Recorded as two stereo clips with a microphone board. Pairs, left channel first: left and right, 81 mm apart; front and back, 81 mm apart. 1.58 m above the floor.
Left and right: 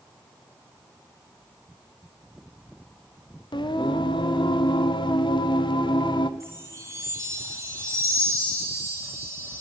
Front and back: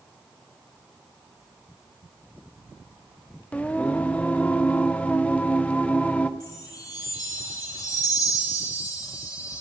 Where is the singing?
75° left, 0.8 m.